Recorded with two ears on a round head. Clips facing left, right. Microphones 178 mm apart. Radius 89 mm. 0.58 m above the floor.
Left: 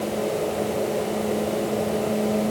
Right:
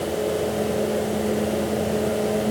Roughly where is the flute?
No flute in this recording.